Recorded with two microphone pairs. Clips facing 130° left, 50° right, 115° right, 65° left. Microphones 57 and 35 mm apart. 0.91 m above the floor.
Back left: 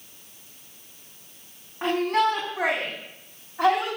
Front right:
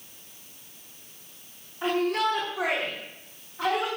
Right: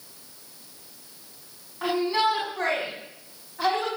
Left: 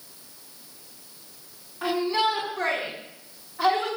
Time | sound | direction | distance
1.8 | a shout | 165° left | 7 m